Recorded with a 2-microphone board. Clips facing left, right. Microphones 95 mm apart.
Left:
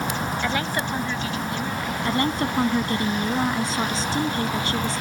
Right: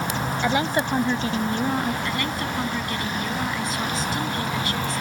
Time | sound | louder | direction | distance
0.4 | a woman speaking | right 6 dB | 15° right (ahead or behind) | ?
2.0 | a woman speaking | left 4 dB | 35° left (ahead or behind) | ?